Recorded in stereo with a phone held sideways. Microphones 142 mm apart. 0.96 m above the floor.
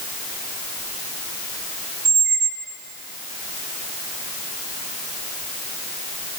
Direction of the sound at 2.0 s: 80° right.